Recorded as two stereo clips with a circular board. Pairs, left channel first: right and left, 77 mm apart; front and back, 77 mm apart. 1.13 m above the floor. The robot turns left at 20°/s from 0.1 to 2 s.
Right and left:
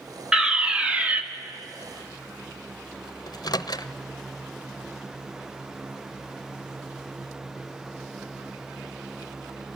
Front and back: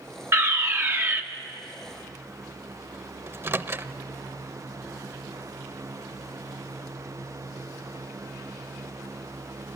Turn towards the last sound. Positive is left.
turn(degrees=-120)